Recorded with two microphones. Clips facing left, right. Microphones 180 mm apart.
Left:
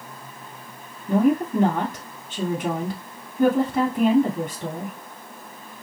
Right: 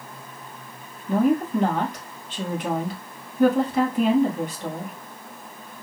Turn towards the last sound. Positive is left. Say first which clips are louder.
# left 1 dB
turn(degrees=50)  # may be behind; listen again after turning